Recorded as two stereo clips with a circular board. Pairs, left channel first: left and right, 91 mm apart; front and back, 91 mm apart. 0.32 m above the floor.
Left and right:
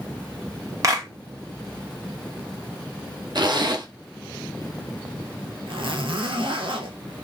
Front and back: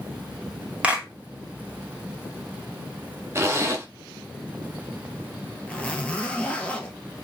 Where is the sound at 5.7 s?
75° right, 1.1 m.